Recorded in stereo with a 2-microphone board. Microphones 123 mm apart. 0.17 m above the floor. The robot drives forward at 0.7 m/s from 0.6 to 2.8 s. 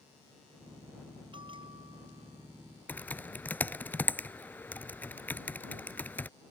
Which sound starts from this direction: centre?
Typing on a keyboard, at 2.9 s.